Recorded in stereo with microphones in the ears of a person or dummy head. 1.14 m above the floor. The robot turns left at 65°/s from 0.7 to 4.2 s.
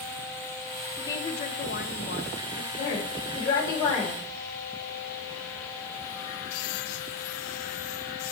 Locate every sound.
1.0 s a woman speaking: 165° left, 0.8 m; by 2.7 s 55° left, 0.8 m
2.8 s a woman speaking: 80° left, 4 m; by 4.2 s 15° right, 4 m